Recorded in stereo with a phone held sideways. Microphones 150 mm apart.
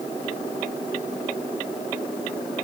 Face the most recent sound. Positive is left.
No sound to turn to.